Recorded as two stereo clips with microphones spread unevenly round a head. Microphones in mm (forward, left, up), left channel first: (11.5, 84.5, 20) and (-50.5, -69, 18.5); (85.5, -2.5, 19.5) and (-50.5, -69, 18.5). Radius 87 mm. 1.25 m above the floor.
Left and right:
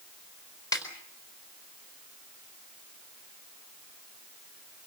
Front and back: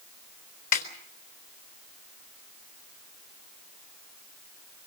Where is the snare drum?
5° right, 4 m.